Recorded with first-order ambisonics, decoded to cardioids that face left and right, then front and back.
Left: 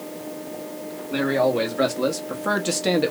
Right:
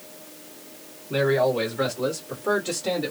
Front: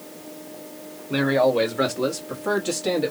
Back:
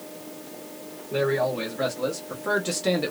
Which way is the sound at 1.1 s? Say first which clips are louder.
Even, front 5 dB; 10° left.